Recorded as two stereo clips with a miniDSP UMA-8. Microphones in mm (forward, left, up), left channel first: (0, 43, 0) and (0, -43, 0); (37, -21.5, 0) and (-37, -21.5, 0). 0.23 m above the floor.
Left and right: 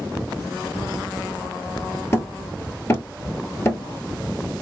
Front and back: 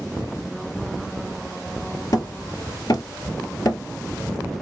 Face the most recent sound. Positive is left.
turn(degrees=30)